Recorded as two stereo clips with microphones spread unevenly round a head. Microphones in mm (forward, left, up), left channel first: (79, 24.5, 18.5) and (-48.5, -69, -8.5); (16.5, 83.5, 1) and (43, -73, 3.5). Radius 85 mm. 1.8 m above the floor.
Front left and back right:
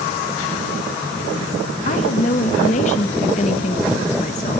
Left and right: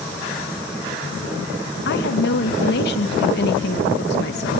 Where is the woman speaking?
85° left, 2 m.